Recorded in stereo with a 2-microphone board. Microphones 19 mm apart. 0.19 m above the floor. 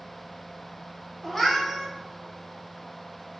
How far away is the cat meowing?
About 1.3 m.